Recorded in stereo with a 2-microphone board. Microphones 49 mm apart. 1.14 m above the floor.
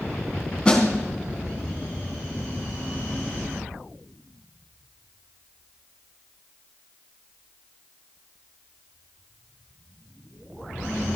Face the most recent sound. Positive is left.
turn(degrees=10)  # may be behind; listen again after turning